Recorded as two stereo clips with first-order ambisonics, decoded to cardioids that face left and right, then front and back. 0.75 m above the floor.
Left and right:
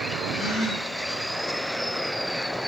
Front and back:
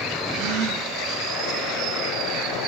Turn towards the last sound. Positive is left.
turn(degrees=160)